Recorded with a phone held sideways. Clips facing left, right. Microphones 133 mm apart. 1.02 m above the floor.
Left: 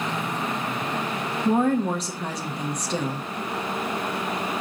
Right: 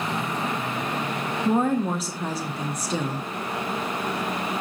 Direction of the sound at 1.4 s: 5° right (ahead or behind).